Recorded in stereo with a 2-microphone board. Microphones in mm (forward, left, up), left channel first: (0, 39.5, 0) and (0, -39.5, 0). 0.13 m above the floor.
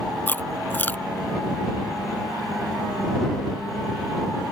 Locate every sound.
0.3 s chewing: 25° left (ahead or behind)